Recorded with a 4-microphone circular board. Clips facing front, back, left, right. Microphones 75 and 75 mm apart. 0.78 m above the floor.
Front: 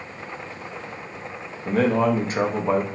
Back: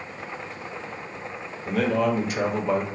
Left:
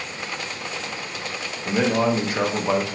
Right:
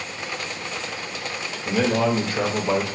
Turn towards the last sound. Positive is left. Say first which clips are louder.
# front 3 dB, even
turn(degrees=30)